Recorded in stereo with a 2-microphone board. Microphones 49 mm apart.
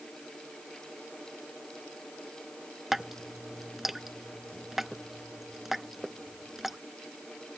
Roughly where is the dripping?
Centre.